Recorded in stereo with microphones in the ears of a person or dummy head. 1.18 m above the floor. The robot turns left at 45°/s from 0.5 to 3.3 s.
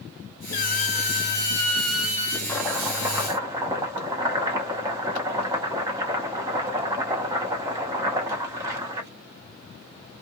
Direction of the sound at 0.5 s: 70° left.